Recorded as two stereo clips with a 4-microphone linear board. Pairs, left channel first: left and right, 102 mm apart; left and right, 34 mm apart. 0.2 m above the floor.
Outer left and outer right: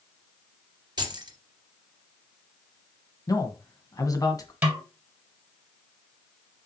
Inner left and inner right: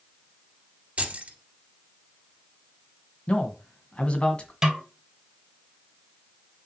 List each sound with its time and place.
1.0 s keys jangling: 45° right (ahead or behind), 2 m
3.3 s a man speaking: 40° left (ahead or behind), 1.7 m
4.6 s a snare drum: 15° right (ahead or behind), 1.7 m